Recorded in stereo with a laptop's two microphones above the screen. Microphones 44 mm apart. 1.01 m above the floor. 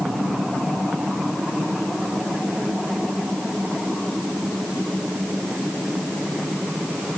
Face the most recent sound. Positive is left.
No sound to turn to.